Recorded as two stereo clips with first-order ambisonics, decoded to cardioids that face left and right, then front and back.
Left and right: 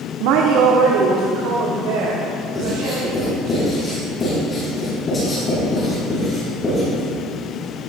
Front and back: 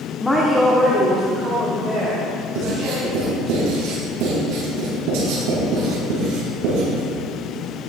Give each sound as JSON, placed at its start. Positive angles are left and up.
{"t": 0.2, "sound": "a woman speaking", "azimuth_deg": -80, "distance_m": 1.4}
{"t": 2.5, "sound": "writing", "azimuth_deg": 160, "distance_m": 6.0}